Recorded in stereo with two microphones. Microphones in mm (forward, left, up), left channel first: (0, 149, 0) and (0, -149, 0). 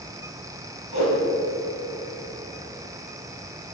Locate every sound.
0.9 s a whoosh: 65° left (ahead or behind), 4.5 m